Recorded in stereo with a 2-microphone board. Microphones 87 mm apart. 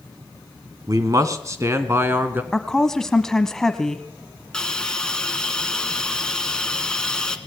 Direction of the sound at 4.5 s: 10° left (ahead or behind).